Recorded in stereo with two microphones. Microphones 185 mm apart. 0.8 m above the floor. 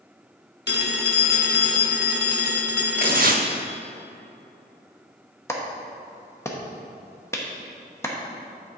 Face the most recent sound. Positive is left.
turn(degrees=15)  # may be behind; listen again after turning